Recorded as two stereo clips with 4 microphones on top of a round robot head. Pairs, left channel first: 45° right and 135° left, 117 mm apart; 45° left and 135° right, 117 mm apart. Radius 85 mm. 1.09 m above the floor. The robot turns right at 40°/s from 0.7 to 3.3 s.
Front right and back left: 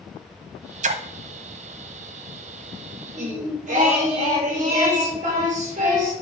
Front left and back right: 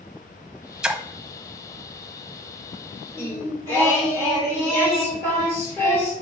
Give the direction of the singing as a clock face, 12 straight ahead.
8 o'clock.